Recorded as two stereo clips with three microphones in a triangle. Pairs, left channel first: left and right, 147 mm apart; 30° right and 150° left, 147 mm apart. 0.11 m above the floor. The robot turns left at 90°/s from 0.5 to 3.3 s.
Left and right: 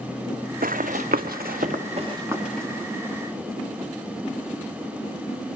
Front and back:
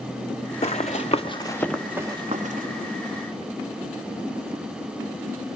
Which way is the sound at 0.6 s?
75° right.